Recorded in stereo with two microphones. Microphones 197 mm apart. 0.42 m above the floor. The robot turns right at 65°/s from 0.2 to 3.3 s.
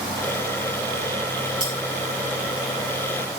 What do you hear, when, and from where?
1.6 s cutlery clinking: 25° right (ahead or behind), 2.5 m; by 1.8 s 35° right (ahead or behind), 2.5 m